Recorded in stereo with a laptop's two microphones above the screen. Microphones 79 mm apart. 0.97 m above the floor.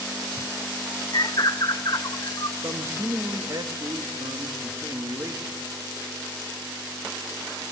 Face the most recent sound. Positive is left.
turn(degrees=-45)  # may be behind; listen again after turning